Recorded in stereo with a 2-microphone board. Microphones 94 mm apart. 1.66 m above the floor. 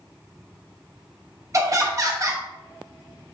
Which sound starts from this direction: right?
Laughter, at 1.5 s.